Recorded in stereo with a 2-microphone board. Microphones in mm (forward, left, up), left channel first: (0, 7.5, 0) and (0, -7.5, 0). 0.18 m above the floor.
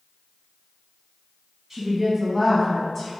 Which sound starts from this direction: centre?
A woman speaking, at 1.7 s.